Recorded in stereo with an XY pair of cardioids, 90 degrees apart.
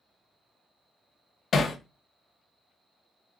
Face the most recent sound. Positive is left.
turn(degrees=55)